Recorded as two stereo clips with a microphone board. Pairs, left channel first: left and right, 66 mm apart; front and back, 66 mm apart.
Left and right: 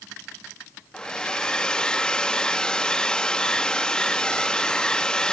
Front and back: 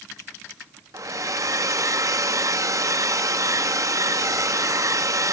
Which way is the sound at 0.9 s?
165° left.